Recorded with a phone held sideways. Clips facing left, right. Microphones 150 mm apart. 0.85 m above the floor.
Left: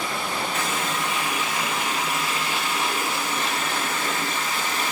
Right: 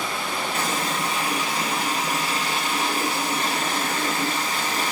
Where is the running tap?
35° right (ahead or behind), 0.7 m.